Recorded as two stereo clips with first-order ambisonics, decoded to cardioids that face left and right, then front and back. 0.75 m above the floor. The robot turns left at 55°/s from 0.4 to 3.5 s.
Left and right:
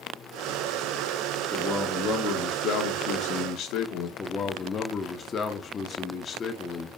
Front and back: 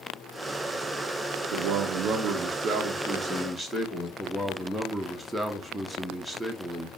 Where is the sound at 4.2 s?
90° left, 0.5 m.